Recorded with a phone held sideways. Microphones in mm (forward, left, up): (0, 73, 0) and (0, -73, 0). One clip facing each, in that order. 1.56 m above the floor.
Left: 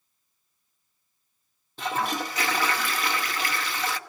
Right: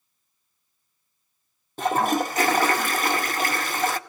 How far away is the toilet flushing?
About 0.7 m.